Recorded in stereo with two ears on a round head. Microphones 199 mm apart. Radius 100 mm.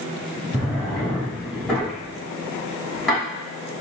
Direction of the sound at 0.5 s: Centre (ahead or behind).